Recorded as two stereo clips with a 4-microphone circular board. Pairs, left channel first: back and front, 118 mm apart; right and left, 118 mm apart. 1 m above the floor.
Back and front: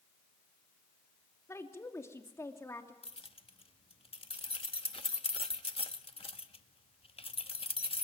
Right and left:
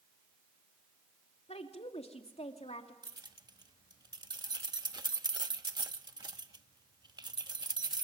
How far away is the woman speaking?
About 2.5 m.